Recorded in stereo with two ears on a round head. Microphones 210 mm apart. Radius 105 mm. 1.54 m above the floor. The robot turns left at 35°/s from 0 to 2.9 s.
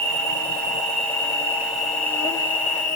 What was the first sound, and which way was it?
An insect, 115° right.